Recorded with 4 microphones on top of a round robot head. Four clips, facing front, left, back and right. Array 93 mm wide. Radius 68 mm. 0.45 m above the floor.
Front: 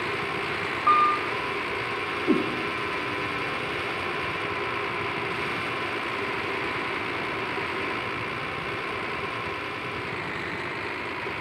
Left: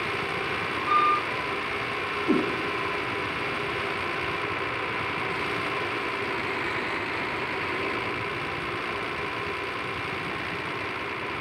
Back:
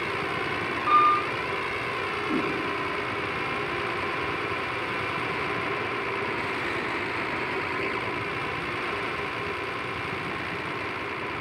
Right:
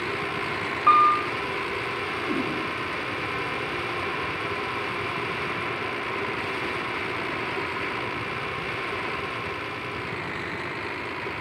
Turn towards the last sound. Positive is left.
turn(degrees=35)